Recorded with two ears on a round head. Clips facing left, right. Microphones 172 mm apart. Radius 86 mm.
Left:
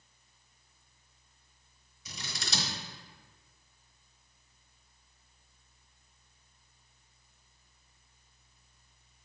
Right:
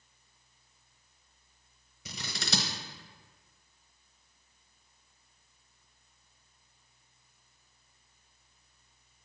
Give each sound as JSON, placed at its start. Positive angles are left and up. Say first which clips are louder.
{"t": 2.0, "sound": "scissors", "louder": "right 5 dB", "side_deg": -55, "distance_m": 1.1}